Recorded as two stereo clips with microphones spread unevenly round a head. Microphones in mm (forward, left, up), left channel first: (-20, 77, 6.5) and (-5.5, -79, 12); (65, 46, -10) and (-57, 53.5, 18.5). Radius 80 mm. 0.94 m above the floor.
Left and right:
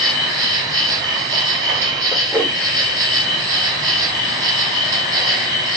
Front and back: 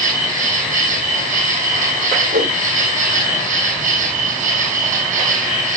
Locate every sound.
0.0 s an insect: 150° right, 4.5 m
2.3 s a whoosh: 165° right, 1.5 m